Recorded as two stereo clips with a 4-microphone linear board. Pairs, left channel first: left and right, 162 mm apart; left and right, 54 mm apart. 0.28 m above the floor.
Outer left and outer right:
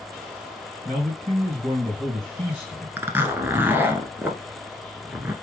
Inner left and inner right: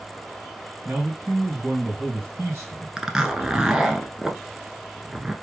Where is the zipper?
15° right (ahead or behind), 0.8 m.